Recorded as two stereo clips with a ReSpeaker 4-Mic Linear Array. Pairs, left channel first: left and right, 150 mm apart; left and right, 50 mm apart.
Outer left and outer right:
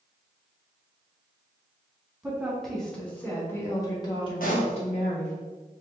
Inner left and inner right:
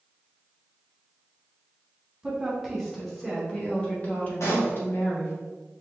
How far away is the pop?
About 1.4 m.